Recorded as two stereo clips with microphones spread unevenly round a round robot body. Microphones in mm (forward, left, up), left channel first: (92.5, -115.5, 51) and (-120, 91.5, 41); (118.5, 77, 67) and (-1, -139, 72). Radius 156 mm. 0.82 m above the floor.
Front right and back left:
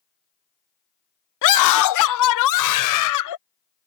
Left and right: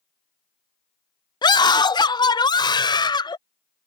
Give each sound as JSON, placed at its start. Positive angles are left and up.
{"t": 1.4, "sound": "a scream", "azimuth_deg": -15}